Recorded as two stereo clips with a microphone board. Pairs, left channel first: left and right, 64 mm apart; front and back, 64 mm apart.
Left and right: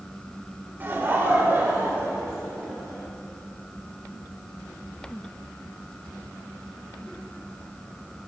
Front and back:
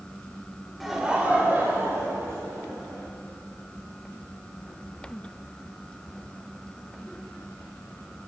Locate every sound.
0.8 s laughter: 90° right, 0.9 m; by 3.0 s 150° right, 2 m